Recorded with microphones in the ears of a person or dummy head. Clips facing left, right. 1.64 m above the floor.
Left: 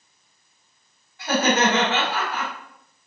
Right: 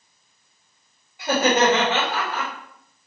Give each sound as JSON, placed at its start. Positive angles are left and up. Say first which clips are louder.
{"t": 1.2, "sound": "laughter", "louder": "right 2 dB", "side_deg": -15, "distance_m": 2.5}